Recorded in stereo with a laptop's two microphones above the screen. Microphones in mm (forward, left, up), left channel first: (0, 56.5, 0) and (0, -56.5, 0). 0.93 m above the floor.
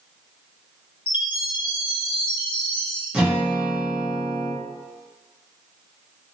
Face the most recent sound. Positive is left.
turn(degrees=-5)  # may be behind; listen again after turning